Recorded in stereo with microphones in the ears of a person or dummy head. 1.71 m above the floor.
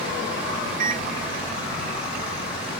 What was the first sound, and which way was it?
A microwave, 45° right (ahead or behind).